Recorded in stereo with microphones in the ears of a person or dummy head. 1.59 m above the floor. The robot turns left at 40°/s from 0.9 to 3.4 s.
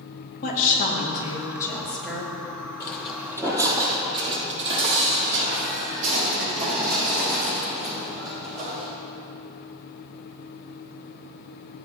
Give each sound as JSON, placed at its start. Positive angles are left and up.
{"t": 0.4, "sound": "a woman speaking", "azimuth_deg": 55, "distance_m": 2.5}
{"t": 2.8, "sound": "footsteps", "side_deg": 20, "distance_m": 2.0}